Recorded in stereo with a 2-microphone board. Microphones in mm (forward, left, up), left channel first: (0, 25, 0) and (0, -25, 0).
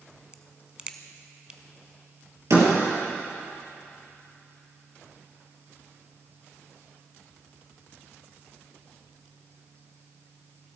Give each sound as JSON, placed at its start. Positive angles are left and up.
{"t": 0.3, "sound": "a crack", "side_deg": -20, "distance_m": 0.7}
{"t": 2.5, "sound": "a door slam", "side_deg": -65, "distance_m": 3.5}